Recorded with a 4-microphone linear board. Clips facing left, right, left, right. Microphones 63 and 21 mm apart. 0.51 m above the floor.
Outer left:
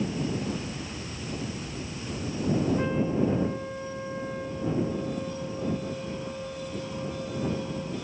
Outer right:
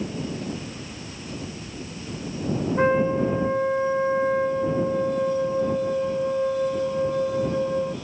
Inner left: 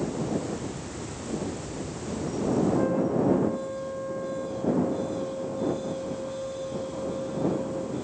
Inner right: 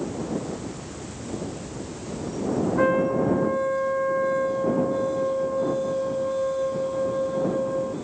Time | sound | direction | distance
2.8 | a trumpet | 55° right (ahead or behind) | ?